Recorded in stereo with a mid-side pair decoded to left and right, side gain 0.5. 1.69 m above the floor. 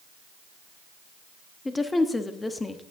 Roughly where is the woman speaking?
Ahead.